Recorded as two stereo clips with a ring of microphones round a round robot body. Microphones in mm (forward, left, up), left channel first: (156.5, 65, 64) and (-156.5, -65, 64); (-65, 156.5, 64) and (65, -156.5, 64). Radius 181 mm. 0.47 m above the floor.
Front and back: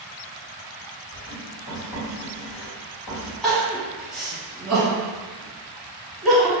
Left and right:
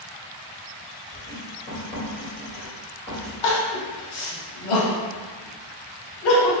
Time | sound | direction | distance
1.1 | writing | 35° left | 1.9 m
3.4 | crying | 110° left | 0.9 m